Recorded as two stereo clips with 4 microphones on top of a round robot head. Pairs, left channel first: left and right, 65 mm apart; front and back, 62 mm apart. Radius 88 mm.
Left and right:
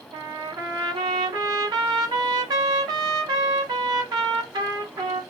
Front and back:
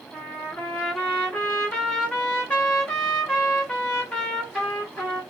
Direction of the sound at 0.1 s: 80° right.